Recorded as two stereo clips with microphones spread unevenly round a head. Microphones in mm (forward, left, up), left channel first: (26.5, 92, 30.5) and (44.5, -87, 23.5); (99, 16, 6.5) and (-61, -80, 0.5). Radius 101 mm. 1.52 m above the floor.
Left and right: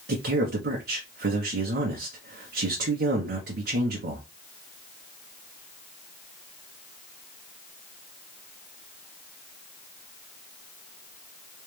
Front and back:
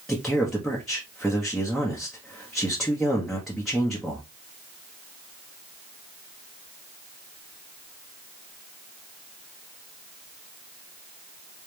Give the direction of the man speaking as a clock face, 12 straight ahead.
2 o'clock.